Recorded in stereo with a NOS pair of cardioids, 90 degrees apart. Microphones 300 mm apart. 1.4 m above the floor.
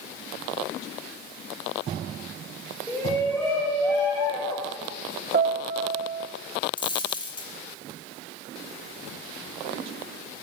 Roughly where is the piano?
Ahead right.